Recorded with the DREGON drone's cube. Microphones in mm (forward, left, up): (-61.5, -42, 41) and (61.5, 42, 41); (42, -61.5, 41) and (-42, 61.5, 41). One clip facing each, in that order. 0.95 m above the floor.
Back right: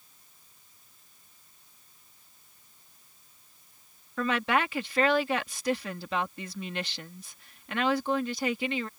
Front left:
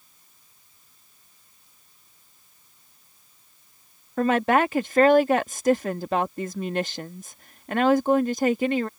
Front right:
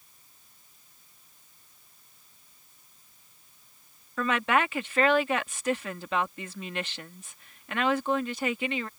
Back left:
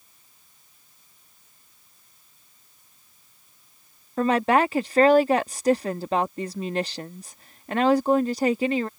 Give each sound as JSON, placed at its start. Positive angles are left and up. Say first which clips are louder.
{"t": 4.2, "sound": "a woman speaking", "louder": "front left 7 dB, back left 6 dB", "azimuth_deg": 75}